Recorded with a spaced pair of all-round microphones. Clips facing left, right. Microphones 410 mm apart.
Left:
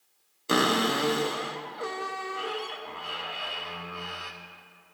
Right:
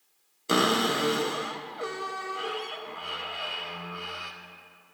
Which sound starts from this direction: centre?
A cupboard door, at 0.5 s.